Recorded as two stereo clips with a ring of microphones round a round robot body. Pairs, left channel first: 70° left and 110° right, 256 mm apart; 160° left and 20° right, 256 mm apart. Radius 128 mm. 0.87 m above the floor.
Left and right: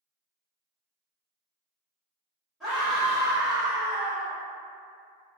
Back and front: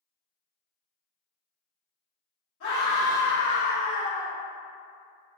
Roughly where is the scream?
Behind.